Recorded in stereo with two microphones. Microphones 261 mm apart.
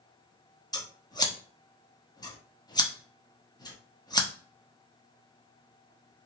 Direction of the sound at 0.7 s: 15° left (ahead or behind).